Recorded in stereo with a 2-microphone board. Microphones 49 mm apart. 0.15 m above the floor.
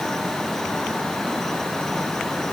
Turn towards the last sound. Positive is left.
No sound to turn to.